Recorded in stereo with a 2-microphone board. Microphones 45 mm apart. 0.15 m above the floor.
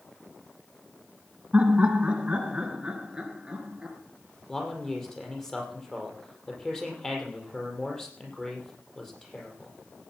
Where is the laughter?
25° right (ahead or behind), 1.8 m; by 4.0 s 15° right (ahead or behind), 3.5 m.